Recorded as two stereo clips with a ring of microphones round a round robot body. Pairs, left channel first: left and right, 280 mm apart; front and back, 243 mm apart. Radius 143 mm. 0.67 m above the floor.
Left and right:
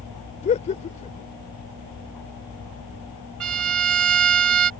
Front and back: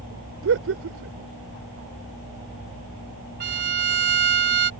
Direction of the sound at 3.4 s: 125° right.